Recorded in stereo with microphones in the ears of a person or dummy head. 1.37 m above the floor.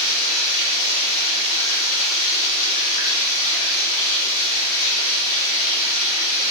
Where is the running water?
75° left (ahead or behind), 2 m.